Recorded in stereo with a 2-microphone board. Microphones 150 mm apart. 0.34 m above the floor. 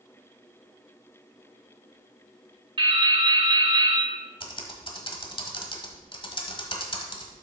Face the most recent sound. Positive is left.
turn(degrees=35)  # may be behind; listen again after turning